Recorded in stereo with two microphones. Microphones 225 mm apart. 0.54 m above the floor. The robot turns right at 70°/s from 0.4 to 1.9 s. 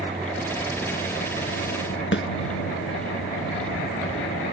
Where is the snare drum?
65° left (ahead or behind).